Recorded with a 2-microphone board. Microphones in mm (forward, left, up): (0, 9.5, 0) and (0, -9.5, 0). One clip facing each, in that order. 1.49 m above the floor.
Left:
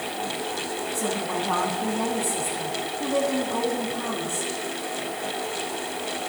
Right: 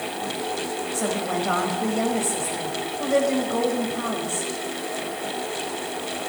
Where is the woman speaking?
65° right (ahead or behind), 7 m.